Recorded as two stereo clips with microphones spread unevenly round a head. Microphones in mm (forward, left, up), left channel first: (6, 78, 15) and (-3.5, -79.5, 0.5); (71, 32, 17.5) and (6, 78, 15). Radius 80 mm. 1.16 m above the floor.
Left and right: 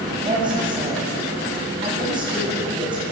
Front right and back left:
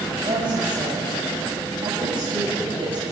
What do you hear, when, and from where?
0.2 s a woman speaking: 160° right, 7.5 m